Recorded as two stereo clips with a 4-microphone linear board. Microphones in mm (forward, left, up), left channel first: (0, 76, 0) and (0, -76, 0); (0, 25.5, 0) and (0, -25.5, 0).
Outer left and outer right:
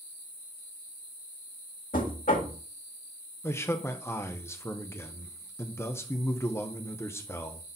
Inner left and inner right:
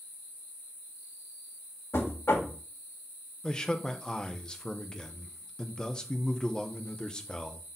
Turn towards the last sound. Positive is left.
turn(degrees=20)  # may be behind; listen again after turning